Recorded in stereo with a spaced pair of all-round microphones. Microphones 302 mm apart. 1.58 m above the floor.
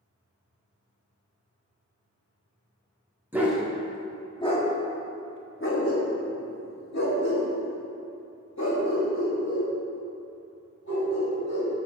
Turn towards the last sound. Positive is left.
turn(degrees=60)  # may be behind; listen again after turning